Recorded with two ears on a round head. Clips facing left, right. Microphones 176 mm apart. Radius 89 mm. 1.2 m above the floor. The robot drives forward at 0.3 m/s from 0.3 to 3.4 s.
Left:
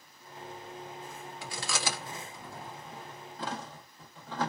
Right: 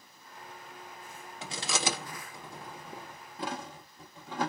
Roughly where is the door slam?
No door slam in this recording.